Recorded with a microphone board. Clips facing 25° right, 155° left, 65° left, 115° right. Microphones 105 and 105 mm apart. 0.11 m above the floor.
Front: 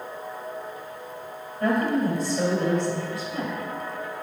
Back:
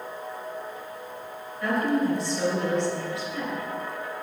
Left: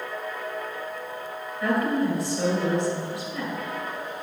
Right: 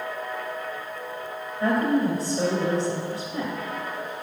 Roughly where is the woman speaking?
Right.